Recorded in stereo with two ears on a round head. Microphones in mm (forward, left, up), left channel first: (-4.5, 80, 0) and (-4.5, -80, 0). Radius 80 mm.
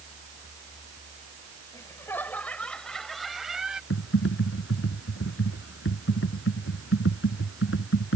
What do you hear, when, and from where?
1.7 s laughter: 15° left (ahead or behind); by 3.8 s 5° right (ahead or behind)
3.9 s typing on a keyboard: 75° left (ahead or behind)